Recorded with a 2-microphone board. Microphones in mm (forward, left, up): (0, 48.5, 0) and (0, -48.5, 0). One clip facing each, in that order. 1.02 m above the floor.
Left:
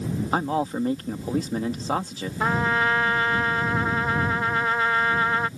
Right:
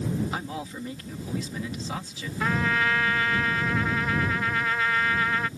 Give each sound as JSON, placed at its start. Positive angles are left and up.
{"t": 0.3, "sound": "a man speaking", "side_deg": 45}
{"t": 2.4, "sound": "a trumpet", "side_deg": 30}